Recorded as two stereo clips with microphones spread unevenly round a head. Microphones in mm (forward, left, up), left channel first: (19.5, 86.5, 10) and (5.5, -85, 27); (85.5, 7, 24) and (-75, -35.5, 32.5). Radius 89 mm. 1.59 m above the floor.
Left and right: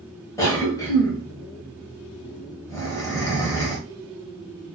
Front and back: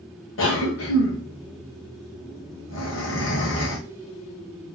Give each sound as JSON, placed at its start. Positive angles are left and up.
{"t": 0.4, "sound": "a cough", "azimuth_deg": 10, "distance_m": 1.4}